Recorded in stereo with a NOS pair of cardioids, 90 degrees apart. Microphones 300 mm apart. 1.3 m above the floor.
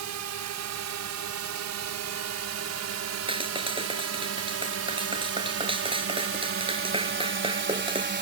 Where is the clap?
15° right.